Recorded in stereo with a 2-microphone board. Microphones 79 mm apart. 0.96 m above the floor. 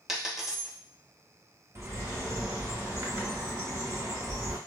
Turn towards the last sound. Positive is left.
turn(degrees=-35)  # may be behind; listen again after turning